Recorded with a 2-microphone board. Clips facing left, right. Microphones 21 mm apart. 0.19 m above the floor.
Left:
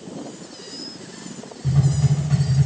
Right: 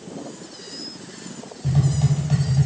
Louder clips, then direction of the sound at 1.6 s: Left 1 dB; 45° right (ahead or behind).